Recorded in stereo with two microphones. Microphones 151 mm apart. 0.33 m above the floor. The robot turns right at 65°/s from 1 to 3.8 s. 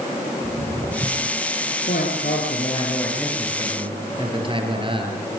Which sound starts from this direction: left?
A man speaking, at 1.9 s.